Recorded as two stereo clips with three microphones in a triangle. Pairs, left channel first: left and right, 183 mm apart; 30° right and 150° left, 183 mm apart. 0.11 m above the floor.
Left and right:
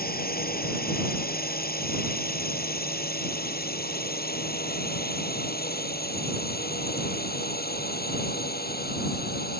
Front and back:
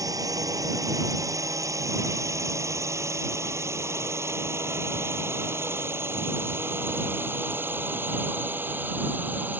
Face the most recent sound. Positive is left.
turn(degrees=70)